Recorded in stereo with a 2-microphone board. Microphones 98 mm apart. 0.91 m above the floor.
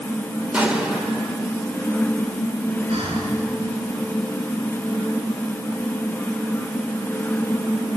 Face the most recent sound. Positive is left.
turn(degrees=-90)